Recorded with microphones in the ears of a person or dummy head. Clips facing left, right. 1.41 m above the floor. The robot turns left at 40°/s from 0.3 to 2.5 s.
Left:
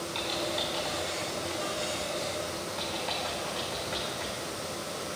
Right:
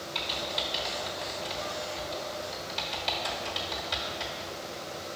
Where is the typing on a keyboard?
Centre (ahead or behind), 1.3 m; by 4.5 s 35° right (ahead or behind), 1.3 m.